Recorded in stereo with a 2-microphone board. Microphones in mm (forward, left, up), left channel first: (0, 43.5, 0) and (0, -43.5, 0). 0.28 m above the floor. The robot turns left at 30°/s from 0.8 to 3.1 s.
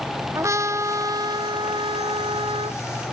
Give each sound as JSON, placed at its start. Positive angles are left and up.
{"t": 0.3, "sound": "a trumpet", "azimuth_deg": -35}